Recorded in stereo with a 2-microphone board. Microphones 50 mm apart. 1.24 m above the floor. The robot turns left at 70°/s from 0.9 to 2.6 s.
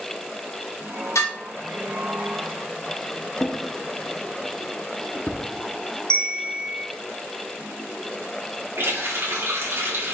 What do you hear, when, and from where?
1.1 s dishes clattering: 85° left, 2.5 m; by 1.3 s 75° left (ahead or behind), 2.5 m
3.4 s a drawer: 20° left (ahead or behind), 0.7 m
6.1 s a bell: 65° right (ahead or behind), 1.7 m
8.8 s a running tap: 60° right (ahead or behind), 2.5 m